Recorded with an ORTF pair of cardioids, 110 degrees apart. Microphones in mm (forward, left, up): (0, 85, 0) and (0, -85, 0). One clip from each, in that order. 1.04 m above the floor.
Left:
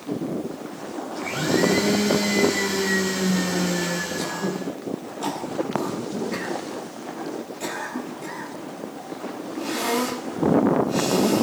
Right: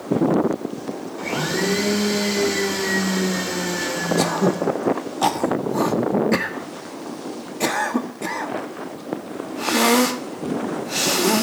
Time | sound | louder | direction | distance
1.2 | a blender | left 1 dB | 15° right | 3 m
4.2 | throat clearing | right 8 dB | 55° right | 1.0 m